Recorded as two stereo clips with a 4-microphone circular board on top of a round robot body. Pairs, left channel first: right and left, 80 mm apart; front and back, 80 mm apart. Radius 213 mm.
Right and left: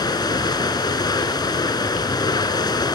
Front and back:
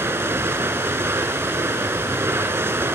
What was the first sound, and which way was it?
Running water, 120° right.